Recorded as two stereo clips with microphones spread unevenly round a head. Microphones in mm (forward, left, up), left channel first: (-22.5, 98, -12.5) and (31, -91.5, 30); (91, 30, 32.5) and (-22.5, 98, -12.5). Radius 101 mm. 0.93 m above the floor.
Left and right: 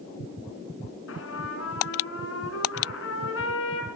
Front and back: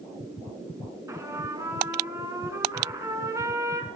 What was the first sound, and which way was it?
A trumpet, 75° left.